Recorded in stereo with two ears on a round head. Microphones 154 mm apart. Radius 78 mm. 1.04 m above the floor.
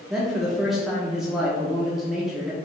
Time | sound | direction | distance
0.1 | a man speaking | 5° right (ahead or behind) | 0.6 m